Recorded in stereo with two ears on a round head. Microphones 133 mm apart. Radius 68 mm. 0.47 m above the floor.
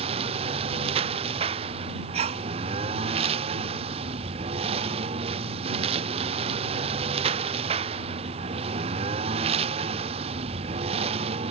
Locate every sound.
0.0 s a lawn mower: 45° right (ahead or behind)
2.1 s a sneeze: 45° right (ahead or behind)